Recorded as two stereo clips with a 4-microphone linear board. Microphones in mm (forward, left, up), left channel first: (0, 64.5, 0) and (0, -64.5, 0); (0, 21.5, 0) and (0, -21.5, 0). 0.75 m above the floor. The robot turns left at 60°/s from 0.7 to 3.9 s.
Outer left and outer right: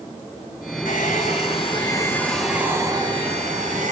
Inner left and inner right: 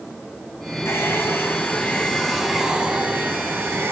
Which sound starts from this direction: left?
A hair dryer, at 0.8 s.